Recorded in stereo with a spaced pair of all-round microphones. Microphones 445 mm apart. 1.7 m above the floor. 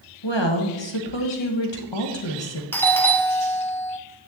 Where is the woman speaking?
75° left (ahead or behind), 1.5 m.